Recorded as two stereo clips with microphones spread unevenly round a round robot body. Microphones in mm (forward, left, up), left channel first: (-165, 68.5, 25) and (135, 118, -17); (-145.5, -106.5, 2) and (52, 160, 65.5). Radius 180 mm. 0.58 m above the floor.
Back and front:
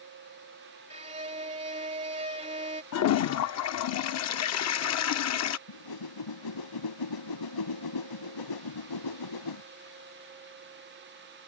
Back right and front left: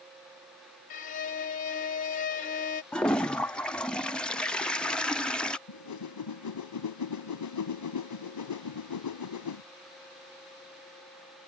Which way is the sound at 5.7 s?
160° right.